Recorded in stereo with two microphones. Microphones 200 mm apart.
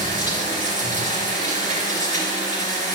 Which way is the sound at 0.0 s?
40° right (ahead or behind).